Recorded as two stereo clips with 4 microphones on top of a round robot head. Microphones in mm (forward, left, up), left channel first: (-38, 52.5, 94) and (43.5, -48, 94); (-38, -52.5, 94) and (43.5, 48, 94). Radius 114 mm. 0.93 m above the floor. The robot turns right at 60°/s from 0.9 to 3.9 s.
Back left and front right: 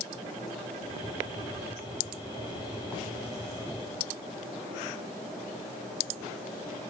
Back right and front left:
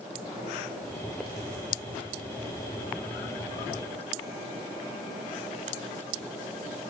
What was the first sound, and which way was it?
Only background noise.